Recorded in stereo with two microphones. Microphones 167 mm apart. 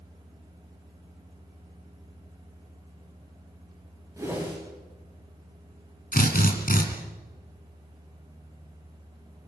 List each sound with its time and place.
4.2 s a whoosh: 15° right (ahead or behind), 8.5 m
6.1 s a drill: 60° left (ahead or behind), 3.5 m